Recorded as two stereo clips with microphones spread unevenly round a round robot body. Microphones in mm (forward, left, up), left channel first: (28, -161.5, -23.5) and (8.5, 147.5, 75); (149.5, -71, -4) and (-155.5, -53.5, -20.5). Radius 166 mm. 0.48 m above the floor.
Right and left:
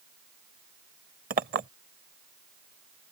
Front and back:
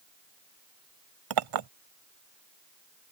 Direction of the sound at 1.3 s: 160° left.